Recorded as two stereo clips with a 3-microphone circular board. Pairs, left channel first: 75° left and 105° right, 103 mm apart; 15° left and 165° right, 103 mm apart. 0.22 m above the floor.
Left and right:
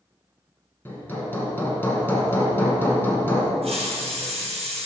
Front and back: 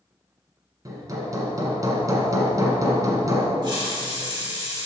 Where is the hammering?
145° left, 1.8 m.